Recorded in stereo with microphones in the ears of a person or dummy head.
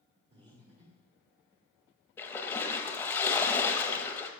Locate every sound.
0.3 s breathing: 35° right (ahead or behind), 1.4 m
2.2 s a splash: 20° left (ahead or behind), 1.1 m